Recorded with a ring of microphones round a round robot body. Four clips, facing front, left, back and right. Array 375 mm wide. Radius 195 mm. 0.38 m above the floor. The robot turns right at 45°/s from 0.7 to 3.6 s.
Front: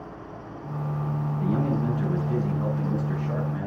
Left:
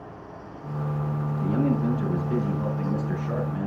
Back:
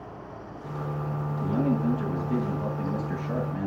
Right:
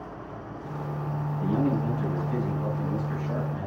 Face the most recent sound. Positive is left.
turn(degrees=70)